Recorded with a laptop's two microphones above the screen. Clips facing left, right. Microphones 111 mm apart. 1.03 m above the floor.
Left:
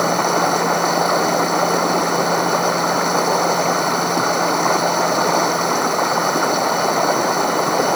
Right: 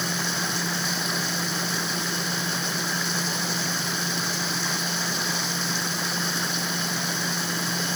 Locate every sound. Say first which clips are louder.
0.0 s running water: left 14 dB; 60° left (ahead or behind)